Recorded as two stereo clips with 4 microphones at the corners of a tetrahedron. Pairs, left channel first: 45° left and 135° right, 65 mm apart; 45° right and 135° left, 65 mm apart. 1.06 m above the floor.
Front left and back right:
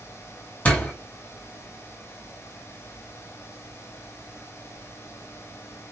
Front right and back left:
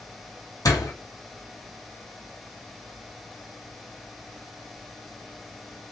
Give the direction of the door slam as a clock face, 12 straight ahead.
1 o'clock.